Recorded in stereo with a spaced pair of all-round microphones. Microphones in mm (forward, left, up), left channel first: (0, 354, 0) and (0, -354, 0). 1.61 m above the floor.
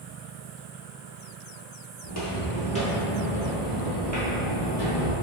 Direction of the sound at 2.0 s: 25° left (ahead or behind).